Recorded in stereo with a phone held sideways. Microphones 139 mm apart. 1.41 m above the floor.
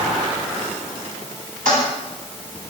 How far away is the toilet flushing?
About 10 m.